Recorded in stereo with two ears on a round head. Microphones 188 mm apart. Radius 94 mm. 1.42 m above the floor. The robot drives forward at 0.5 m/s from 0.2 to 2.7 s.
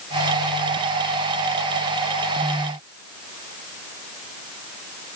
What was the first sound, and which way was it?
Only background noise.